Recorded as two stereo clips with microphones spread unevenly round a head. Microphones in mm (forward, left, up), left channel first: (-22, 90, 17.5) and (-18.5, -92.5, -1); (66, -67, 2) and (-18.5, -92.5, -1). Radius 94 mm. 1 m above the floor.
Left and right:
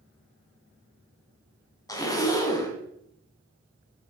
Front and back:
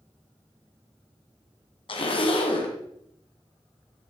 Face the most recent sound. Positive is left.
turn(degrees=20)